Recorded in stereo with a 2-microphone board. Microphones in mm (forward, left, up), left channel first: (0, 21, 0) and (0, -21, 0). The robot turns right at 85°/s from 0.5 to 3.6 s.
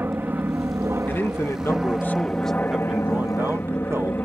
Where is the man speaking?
50° left; by 4.2 s 95° right.